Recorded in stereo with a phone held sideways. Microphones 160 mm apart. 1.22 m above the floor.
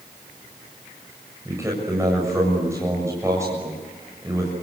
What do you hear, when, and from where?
1.4 s a man speaking: 20° right (ahead or behind), 7 m